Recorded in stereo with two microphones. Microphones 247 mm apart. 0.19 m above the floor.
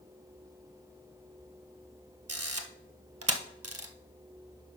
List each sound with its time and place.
2.3 s a camera shutter: 75° right (ahead or behind), 0.8 m